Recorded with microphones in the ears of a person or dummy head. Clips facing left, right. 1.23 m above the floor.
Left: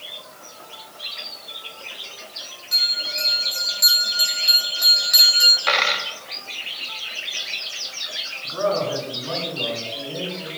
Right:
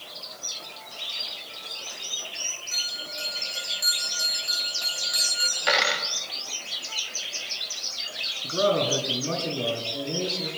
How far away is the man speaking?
About 7.5 m.